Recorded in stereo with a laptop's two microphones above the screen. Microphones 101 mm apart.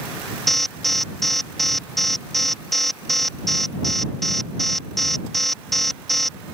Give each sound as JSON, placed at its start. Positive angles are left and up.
{"t": 0.5, "sound": "an alarm", "side_deg": 5}